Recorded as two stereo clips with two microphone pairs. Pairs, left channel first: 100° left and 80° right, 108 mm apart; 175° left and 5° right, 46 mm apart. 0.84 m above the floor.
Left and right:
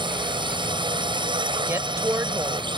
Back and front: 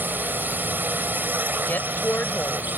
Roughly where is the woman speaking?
Behind right.